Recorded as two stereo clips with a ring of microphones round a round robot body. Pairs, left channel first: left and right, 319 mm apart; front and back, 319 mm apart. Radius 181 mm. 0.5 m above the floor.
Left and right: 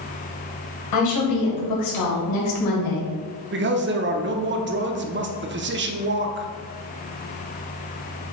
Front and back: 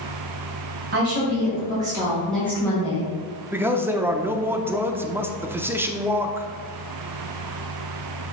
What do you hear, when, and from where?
0.9 s a woman speaking: 120° left, 2.5 m; by 3.1 s 70° left, 2.5 m
3.5 s a man speaking: 100° right, 0.8 m